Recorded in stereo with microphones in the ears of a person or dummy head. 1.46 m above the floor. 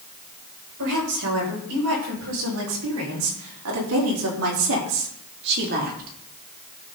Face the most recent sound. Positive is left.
turn(degrees=-40)  # may be behind; listen again after turning